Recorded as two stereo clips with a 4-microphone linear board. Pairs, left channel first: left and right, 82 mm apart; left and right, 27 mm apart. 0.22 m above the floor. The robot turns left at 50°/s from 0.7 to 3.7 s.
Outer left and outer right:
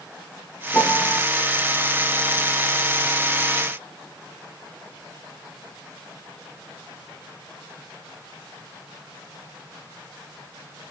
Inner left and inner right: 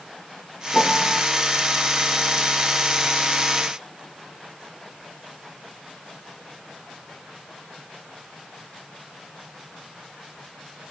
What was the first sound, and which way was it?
A piano, 15° left (ahead or behind).